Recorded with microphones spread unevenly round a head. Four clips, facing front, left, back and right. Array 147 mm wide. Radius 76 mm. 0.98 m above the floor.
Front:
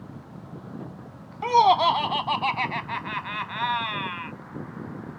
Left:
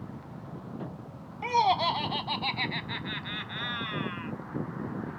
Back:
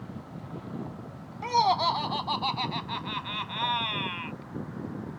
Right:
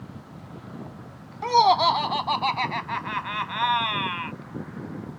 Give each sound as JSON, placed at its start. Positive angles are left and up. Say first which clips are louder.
{"t": 1.4, "sound": "laughter", "louder": "right 7 dB, front 6 dB", "azimuth_deg": -30}